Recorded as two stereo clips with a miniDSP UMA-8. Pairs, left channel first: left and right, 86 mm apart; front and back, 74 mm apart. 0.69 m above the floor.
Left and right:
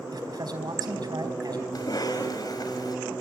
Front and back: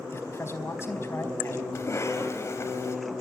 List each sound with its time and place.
0.1 s a man speaking: 55° right, 4 m
1.8 s a cough: 50° left, 4.5 m